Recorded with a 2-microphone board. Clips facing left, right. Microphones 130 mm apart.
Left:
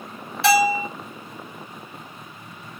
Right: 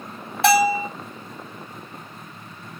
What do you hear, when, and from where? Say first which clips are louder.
0.4 s a bell: right 1 dB; 50° right (ahead or behind), 3 m